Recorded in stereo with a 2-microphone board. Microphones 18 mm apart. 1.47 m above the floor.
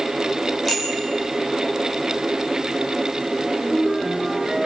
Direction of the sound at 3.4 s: 35° right (ahead or behind).